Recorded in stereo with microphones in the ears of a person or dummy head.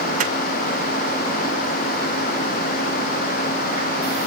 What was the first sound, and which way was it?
A microwave, 50° right (ahead or behind).